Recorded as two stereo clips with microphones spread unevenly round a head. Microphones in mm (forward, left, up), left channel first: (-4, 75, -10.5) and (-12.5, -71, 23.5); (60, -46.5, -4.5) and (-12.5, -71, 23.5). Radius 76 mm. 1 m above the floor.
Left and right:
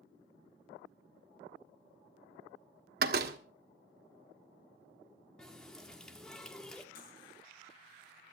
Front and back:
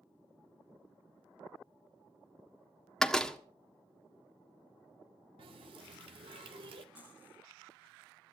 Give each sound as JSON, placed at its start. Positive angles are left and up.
{"t": 3.0, "sound": "a door slam", "azimuth_deg": -65, "distance_m": 1.4}
{"t": 5.4, "sound": "a running tap", "azimuth_deg": 175, "distance_m": 1.4}
{"t": 7.0, "sound": "cutlery clinking", "azimuth_deg": 115, "distance_m": 8.5}